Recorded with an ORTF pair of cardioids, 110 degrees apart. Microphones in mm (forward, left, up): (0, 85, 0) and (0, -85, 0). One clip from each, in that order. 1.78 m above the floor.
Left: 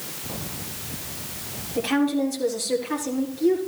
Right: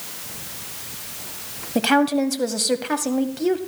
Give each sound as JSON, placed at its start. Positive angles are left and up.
{"t": 1.8, "sound": "a woman speaking", "azimuth_deg": -65, "distance_m": 1.4}